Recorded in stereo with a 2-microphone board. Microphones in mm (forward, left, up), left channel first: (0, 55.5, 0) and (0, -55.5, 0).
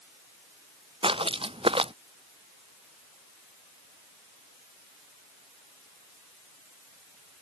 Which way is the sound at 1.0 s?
55° right (ahead or behind).